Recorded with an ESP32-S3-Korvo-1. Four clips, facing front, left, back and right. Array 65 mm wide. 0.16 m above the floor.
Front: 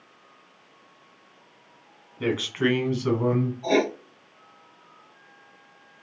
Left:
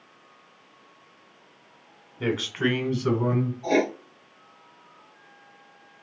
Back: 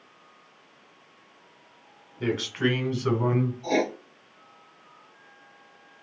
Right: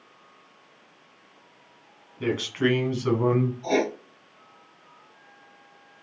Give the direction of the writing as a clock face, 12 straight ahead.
12 o'clock.